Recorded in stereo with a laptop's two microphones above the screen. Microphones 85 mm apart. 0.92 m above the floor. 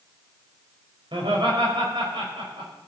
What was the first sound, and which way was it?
Laughter, 75° right (ahead or behind).